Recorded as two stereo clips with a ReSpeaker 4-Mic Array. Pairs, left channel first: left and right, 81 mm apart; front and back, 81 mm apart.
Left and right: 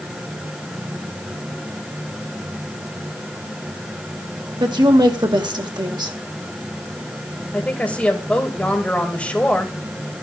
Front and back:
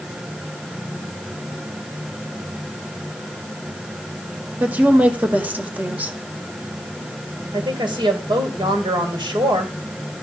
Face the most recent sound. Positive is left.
turn(degrees=165)